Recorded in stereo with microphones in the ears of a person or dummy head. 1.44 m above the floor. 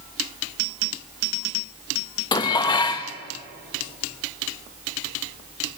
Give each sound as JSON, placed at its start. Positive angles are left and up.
{"t": 2.3, "sound": "dishes clattering", "side_deg": 20, "distance_m": 0.9}